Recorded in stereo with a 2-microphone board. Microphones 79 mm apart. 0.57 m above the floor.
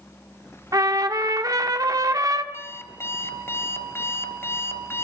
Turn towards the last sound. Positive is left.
turn(degrees=30)  # may be behind; listen again after turning